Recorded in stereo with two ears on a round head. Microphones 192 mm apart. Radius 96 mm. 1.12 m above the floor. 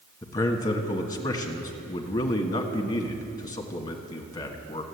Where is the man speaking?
20° left (ahead or behind), 1.5 m.